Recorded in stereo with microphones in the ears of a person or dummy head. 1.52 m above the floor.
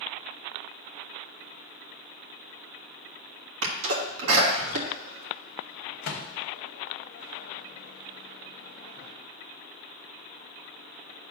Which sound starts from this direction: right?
A sneeze, at 3.6 s.